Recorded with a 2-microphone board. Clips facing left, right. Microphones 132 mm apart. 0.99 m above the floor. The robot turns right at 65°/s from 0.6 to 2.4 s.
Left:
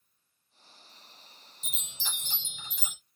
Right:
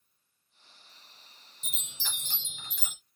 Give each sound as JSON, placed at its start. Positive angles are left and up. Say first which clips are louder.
{"t": 1.6, "sound": "a chime", "louder": "even", "azimuth_deg": -115, "distance_m": 2.5}